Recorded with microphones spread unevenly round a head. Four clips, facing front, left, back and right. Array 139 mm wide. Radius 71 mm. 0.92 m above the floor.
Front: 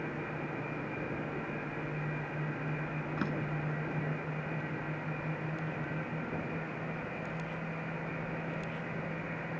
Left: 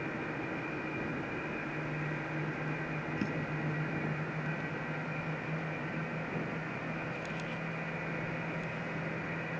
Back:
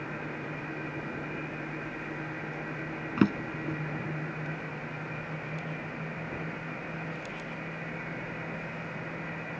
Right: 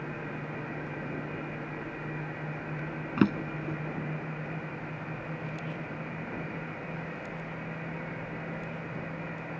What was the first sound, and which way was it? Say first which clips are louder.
A drawer: right 12 dB, back 11 dB; 140° right.